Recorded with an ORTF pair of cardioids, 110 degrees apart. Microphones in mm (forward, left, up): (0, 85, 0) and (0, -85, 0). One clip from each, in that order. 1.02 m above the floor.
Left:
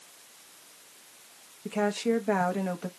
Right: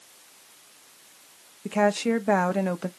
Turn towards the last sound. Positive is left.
turn(degrees=-25)